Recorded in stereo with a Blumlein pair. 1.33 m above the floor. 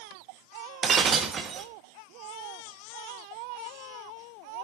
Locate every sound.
0.8 s breaking glass: 25° right, 1.3 m